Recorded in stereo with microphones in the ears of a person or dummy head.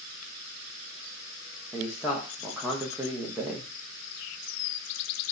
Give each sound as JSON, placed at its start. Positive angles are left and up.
{"t": 1.7, "sound": "a man speaking", "side_deg": -5, "distance_m": 0.8}